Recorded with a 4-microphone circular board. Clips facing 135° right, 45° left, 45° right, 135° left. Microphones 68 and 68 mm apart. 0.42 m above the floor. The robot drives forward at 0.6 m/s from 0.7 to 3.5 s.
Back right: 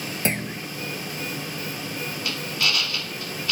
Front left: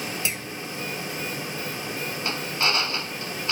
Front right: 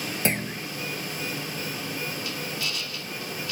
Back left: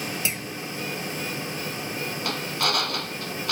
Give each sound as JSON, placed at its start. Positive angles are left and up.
{"t": 0.2, "sound": "a clunk", "azimuth_deg": -90}
{"t": 2.2, "sound": "a drill", "azimuth_deg": 105}